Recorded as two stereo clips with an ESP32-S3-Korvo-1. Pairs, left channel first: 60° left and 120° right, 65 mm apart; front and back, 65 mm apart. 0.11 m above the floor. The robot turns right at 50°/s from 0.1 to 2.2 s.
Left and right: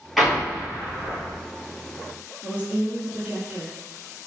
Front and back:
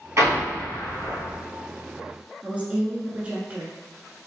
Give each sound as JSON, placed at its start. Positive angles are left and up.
{"t": 0.2, "sound": "an explosion", "azimuth_deg": 150, "distance_m": 1.5}
{"t": 2.4, "sound": "a woman speaking", "azimuth_deg": -150, "distance_m": 1.1}